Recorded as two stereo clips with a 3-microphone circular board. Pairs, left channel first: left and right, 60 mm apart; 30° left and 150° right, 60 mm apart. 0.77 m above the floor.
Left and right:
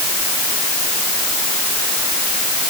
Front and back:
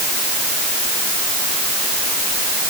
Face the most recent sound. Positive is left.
No sound to turn to.